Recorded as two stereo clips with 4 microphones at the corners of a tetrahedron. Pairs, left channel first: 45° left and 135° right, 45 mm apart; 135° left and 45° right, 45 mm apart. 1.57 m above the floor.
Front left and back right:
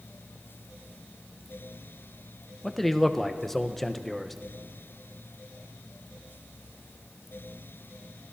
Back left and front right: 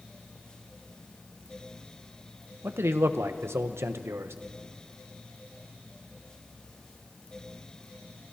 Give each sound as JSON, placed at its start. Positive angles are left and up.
{"t": 2.6, "sound": "a man speaking", "azimuth_deg": -40, "distance_m": 1.1}